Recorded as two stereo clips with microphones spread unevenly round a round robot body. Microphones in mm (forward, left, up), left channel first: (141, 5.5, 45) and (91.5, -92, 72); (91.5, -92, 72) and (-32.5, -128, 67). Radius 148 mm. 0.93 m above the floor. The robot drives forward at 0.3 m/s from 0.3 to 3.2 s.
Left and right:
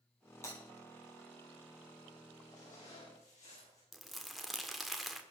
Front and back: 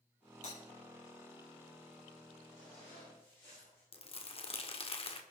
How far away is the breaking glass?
About 6.5 m.